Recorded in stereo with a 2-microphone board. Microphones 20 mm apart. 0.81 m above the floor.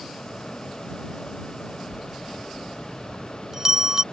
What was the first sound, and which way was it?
A bell, 25° right (ahead or behind).